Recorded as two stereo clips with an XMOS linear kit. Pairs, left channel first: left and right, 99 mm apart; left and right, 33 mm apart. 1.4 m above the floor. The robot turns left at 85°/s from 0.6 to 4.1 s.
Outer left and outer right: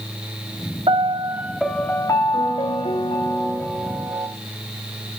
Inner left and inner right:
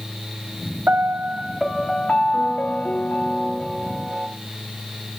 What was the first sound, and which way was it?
A piano, 110° right.